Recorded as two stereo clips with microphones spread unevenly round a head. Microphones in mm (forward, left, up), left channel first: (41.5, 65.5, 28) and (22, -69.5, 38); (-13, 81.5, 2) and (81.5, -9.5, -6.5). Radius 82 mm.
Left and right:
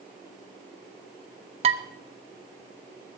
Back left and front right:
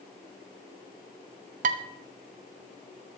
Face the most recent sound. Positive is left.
turn(degrees=-65)